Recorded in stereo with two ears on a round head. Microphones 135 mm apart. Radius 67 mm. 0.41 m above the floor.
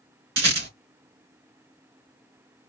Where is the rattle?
80° right, 4 m.